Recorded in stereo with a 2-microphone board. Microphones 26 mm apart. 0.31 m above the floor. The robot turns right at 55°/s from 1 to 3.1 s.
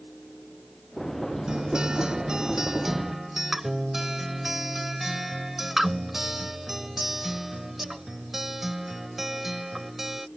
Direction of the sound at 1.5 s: 25° right (ahead or behind).